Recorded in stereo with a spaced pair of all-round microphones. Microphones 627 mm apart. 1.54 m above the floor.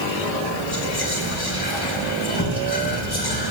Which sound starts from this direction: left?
Whispering, at 0.7 s.